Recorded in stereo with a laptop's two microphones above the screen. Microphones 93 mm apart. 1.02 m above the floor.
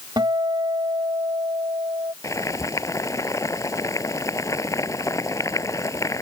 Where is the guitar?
50° right (ahead or behind).